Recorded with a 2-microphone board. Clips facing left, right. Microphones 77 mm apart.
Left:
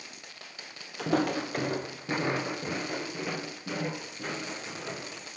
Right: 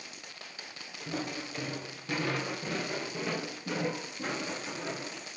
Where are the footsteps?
80° left, 0.9 m; by 5.2 s 5° right (ahead or behind), 3.5 m.